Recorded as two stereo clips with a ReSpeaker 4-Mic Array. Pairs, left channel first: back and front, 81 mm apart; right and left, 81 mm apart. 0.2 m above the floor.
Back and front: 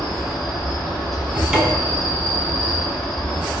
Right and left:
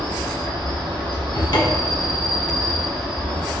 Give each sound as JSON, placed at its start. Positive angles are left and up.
{"t": 0.0, "sound": "an insect", "azimuth_deg": 95, "distance_m": 1.4}
{"t": 1.3, "sound": "a cupboard door", "azimuth_deg": -80, "distance_m": 0.5}